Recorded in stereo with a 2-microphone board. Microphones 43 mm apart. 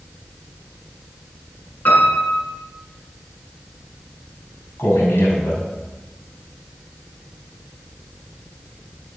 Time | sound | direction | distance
1.9 | a piano | 45° left (ahead or behind) | 7.5 m
4.8 | a man speaking | 75° left (ahead or behind) | 4.5 m